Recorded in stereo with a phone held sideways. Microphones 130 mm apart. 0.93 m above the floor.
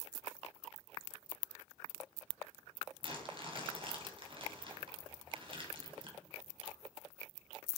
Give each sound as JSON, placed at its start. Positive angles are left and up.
{"t": 3.0, "sound": "crumpling", "side_deg": -40, "distance_m": 2.0}